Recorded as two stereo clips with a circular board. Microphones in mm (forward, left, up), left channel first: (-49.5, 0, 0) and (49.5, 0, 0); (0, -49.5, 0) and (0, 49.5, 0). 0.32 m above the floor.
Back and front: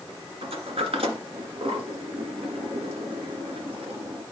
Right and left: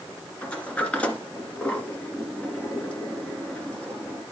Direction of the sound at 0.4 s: 15° right.